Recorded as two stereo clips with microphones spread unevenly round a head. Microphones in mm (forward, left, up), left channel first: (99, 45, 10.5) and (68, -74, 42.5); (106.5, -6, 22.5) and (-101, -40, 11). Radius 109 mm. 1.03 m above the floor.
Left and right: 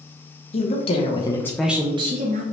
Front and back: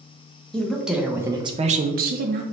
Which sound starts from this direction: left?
A woman speaking, at 0.5 s.